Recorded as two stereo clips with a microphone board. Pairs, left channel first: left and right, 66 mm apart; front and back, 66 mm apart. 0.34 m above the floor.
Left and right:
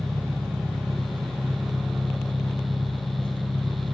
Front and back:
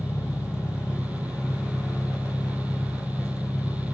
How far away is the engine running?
About 1.4 m.